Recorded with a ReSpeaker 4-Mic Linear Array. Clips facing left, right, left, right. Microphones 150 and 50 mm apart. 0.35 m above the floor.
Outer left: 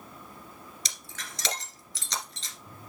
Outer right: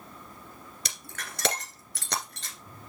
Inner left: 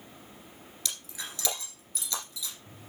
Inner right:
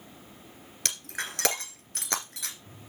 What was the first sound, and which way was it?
Breaking glass, 55° right (ahead or behind).